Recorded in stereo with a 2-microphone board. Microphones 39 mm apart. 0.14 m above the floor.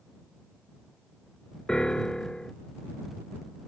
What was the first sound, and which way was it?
A piano, 20° left (ahead or behind).